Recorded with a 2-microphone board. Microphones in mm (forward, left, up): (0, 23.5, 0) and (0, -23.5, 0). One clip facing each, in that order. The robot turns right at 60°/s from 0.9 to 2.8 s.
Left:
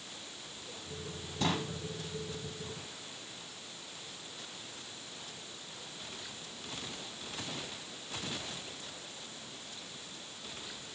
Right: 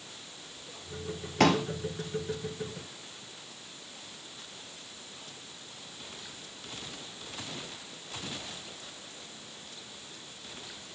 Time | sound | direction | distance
1.4 | a pop | 75° right (ahead or behind) | 2 m